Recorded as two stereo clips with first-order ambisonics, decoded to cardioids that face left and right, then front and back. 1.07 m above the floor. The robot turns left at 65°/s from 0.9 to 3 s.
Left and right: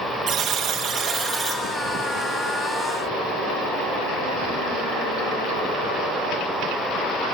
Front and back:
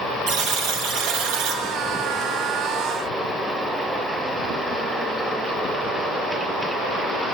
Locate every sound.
0.3 s a buzzer: 145° right, 1.1 m; by 1.6 s 170° left, 1.1 m